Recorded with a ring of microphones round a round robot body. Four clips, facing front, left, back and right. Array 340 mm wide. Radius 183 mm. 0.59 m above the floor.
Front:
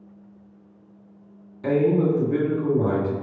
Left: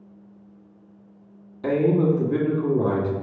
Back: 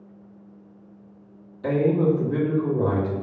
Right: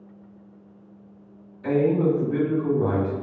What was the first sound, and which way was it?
A man speaking, 85° left.